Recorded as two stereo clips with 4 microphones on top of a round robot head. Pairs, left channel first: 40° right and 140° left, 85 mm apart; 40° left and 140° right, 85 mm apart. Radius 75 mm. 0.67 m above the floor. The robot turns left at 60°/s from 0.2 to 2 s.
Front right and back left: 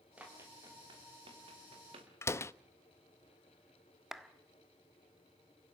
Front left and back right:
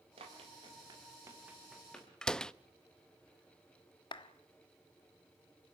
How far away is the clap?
About 1.5 m.